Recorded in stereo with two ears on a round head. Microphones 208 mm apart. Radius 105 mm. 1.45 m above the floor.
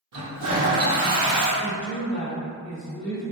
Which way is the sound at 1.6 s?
15° left (ahead or behind).